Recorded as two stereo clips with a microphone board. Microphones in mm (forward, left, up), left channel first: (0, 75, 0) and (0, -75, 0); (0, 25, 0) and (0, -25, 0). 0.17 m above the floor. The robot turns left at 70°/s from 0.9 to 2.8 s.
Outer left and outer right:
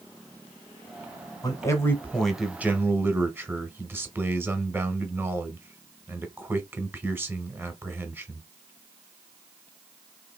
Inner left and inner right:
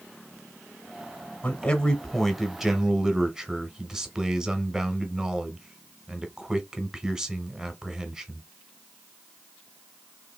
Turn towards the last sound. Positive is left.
turn(degrees=-15)  # may be behind; listen again after turning